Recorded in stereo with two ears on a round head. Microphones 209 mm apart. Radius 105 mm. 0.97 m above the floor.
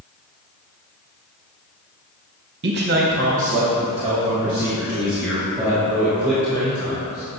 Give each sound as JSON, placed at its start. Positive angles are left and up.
{"t": 2.6, "sound": "a man speaking", "side_deg": -50, "distance_m": 0.9}